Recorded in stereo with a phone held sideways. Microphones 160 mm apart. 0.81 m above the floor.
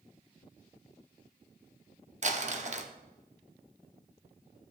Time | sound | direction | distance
2.2 | crumpling | 45° right (ahead or behind) | 0.8 m